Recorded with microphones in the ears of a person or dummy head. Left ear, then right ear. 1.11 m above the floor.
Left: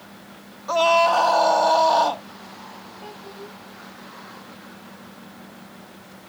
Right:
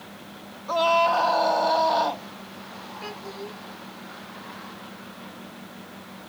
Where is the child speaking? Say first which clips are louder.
Right 3 dB; 55° right (ahead or behind).